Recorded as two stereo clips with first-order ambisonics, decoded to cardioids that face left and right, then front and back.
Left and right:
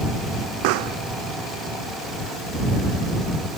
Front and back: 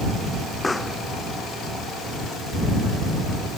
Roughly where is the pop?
Right.